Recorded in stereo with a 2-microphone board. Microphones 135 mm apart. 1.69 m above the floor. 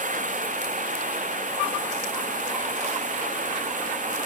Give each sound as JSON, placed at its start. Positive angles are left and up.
{"t": 0.0, "sound": "running water", "side_deg": -70}